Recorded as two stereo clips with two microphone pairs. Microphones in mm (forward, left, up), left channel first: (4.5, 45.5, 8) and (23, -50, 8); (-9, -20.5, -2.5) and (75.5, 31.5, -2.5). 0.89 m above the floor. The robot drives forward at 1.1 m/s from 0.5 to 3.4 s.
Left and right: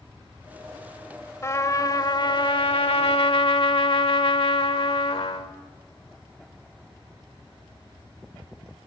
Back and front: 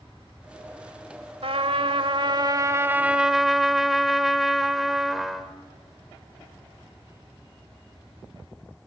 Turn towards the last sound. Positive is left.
turn(degrees=120)